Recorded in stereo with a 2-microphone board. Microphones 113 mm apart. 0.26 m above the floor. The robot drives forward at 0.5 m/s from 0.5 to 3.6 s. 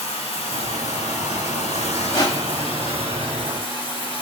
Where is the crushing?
40° left (ahead or behind), 1.1 m; by 2.7 s 35° left (ahead or behind), 1.2 m.